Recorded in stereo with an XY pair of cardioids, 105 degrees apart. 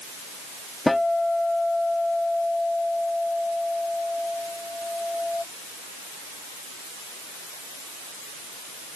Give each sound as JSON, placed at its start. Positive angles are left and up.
{"t": 0.9, "sound": "a guitar", "azimuth_deg": 10}